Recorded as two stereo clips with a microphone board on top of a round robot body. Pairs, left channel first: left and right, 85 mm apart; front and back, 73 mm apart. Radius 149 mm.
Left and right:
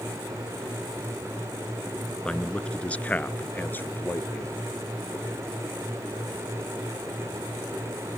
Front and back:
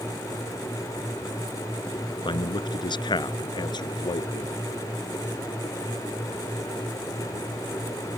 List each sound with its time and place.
2.2 s a man speaking: 10° left; by 4.5 s 25° left